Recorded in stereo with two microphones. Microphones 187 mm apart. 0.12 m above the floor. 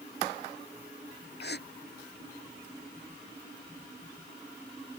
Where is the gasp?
60° left (ahead or behind).